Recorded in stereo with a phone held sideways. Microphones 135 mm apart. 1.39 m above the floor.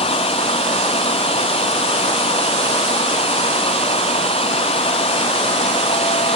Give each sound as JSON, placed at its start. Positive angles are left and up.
{"t": 0.0, "sound": "a fan", "side_deg": 45}